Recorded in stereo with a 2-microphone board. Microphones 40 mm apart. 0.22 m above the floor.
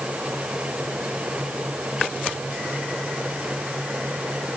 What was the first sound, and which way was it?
Only background noise.